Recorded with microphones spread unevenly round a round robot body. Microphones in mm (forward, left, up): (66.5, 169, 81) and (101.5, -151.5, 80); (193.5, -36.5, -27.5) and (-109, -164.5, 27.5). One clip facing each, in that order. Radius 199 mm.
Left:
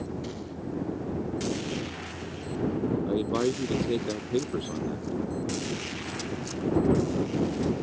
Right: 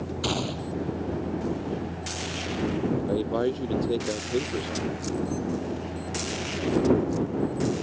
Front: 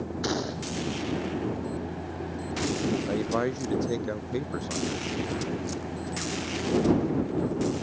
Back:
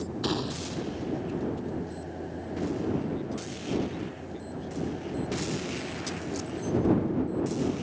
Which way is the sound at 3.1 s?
20° left.